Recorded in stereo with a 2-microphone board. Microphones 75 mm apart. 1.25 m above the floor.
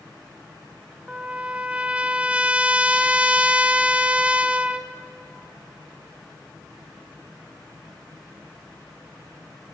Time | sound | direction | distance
1.1 | a trumpet | 15° right (ahead or behind) | 0.5 m